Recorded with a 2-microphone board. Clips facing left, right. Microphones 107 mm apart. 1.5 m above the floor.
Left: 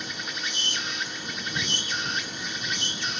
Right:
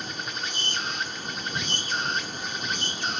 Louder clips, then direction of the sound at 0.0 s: Right 1 dB; 50° right (ahead or behind).